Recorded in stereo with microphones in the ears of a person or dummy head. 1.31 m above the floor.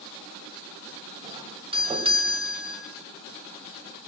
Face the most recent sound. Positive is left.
turn(degrees=-30)  # may be behind; listen again after turning